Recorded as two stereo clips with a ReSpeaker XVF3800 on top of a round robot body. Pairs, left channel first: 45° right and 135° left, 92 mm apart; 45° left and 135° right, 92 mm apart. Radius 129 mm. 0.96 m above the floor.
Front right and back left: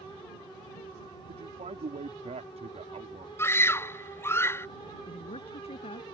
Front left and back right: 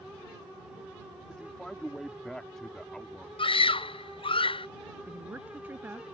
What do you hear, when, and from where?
1.3 s a man speaking: 130° left
3.4 s a scream: 20° left
5.1 s a woman speaking: 60° right